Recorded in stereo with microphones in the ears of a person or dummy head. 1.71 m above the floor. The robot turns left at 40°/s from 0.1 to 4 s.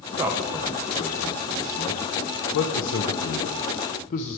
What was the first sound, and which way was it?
A man speaking, 20° right (ahead or behind).